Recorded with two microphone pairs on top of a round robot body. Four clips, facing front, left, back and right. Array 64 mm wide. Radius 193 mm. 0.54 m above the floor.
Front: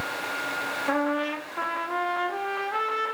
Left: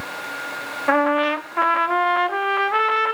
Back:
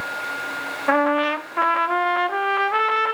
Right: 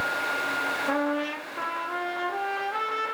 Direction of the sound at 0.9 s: 125° left.